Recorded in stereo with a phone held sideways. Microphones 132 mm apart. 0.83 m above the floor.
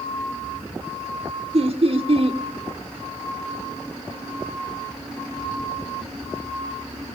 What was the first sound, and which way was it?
Laughter, 50° right (ahead or behind).